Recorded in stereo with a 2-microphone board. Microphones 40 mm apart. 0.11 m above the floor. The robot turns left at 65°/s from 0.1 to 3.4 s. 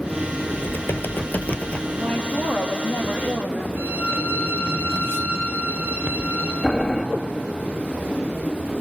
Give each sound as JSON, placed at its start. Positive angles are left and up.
{"t": 0.5, "sound": "typing on a keyboard", "azimuth_deg": 115, "distance_m": 0.8}
{"t": 2.0, "sound": "a woman speaking", "azimuth_deg": 155, "distance_m": 2.5}
{"t": 3.8, "sound": "a violin", "side_deg": -55, "distance_m": 7.0}
{"t": 6.6, "sound": "boiling", "side_deg": 0, "distance_m": 2.5}